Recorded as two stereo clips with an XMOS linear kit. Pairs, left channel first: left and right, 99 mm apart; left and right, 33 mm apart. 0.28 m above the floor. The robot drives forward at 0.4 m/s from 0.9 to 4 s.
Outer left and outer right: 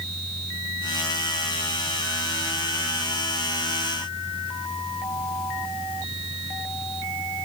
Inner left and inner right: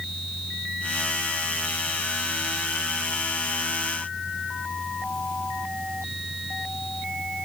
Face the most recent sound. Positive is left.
No sound to turn to.